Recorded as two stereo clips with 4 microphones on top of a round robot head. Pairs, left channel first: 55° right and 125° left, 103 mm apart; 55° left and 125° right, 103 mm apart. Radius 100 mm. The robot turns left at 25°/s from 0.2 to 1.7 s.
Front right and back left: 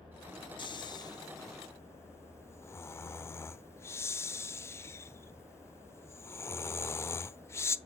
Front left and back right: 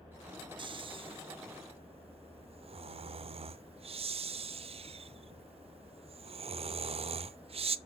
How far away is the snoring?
About 0.7 m.